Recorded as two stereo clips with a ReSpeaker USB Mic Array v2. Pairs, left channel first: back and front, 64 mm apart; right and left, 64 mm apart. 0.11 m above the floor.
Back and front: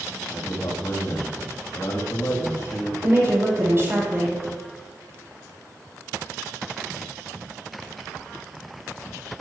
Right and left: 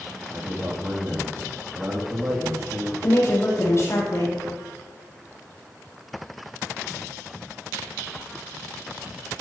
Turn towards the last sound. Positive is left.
turn(degrees=-45)